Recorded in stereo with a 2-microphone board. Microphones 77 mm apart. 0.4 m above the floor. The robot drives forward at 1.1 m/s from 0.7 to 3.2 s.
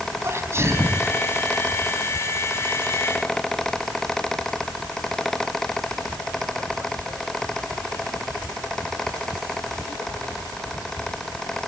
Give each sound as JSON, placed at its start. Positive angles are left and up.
{"t": 0.2, "sound": "a sneeze", "side_deg": -35, "distance_m": 3.0}